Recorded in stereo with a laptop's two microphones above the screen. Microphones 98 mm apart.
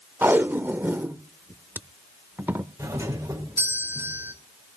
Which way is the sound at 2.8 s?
25° right (ahead or behind).